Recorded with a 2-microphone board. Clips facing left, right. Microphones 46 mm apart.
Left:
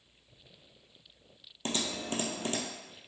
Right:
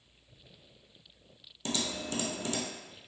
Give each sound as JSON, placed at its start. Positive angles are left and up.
{"t": 1.6, "sound": "typing on a keyboard", "side_deg": 40, "distance_m": 0.6}